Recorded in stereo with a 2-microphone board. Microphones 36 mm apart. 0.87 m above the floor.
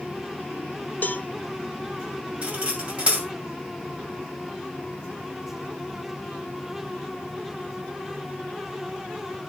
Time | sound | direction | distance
1.0 | a cowbell | 55° left (ahead or behind) | 0.5 m
2.4 | cutlery clinking | 30° right (ahead or behind) | 2.5 m